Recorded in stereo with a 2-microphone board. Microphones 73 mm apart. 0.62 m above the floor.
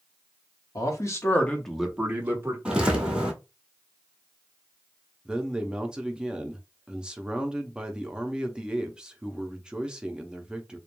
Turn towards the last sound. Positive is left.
turn(degrees=-10)  # may be behind; listen again after turning